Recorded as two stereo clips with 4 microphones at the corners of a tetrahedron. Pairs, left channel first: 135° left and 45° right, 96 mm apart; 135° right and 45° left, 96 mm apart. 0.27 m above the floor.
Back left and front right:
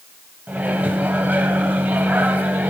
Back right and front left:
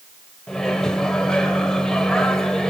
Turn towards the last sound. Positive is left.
turn(degrees=-65)